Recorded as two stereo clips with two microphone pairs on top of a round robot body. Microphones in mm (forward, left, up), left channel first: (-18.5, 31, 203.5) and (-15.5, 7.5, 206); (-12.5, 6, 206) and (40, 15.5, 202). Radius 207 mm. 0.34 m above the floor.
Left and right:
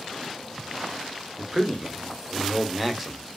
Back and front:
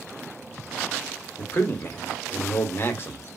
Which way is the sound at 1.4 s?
Straight behind.